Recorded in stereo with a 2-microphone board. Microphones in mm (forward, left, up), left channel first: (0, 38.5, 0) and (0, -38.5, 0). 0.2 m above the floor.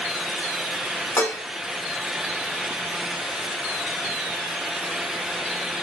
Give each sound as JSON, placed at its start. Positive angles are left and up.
{"t": 1.2, "sound": "dishes clattering", "side_deg": 30, "distance_m": 1.4}